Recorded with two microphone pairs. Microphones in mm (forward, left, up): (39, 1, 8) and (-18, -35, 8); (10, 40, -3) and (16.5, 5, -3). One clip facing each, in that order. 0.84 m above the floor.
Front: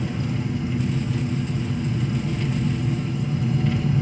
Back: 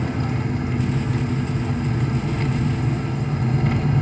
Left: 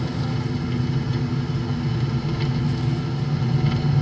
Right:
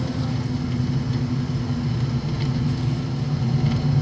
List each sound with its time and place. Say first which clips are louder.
0.0 s an engine running: back 2 dB, even; 170° right, 1.5 m